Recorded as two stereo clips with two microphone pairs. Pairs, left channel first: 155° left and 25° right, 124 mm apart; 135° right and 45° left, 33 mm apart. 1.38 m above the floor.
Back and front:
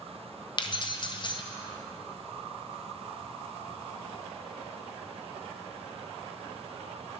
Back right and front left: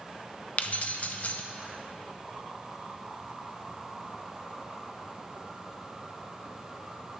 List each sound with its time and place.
0.6 s keys jangling: 165° right, 0.6 m